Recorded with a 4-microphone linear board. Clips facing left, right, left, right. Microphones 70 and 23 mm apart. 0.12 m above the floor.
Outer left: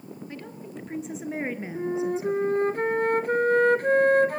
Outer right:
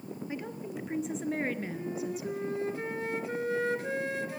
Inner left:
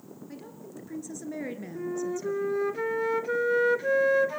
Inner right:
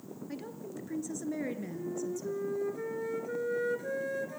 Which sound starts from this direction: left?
A flute, at 1.8 s.